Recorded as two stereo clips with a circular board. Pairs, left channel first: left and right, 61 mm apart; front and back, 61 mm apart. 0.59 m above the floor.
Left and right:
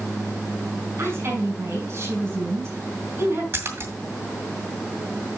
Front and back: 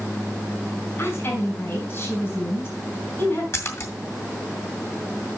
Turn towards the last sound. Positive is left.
turn(degrees=-45)